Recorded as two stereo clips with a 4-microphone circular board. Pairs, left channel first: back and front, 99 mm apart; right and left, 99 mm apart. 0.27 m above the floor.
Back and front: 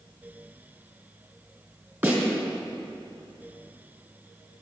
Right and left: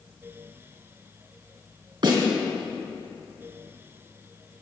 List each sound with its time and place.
2.0 s a snare drum: 60° left, 3.5 m